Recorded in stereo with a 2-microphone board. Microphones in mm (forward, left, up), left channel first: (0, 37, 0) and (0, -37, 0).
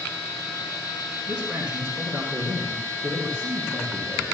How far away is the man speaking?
About 3 m.